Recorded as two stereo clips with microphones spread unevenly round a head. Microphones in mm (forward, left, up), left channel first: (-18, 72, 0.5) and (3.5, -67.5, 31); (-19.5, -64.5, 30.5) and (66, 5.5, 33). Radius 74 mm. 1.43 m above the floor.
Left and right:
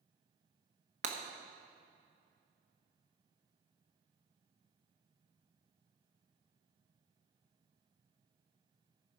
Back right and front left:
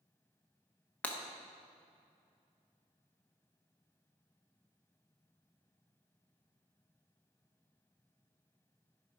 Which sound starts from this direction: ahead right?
Breaking glass, at 1.0 s.